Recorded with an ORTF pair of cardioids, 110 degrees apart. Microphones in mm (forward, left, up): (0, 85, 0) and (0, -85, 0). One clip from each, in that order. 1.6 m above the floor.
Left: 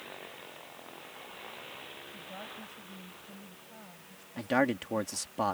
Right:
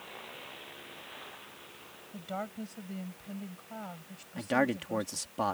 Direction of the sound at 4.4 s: Straight ahead.